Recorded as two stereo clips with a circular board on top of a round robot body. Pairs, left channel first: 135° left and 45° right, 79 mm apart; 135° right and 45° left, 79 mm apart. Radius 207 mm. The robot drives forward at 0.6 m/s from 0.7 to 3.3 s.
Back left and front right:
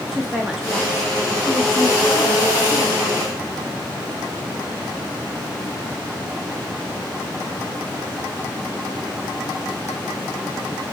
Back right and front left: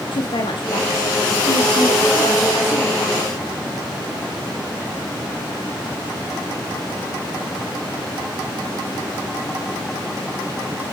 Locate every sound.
0.1 s a woman speaking: 130° right, 2 m; by 3.4 s 150° right, 3.5 m